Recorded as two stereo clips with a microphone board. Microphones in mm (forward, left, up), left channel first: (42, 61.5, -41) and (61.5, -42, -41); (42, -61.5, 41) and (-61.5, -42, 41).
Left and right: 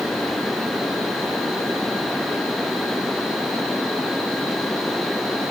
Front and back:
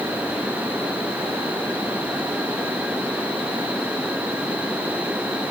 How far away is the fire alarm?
No fire alarm in this recording.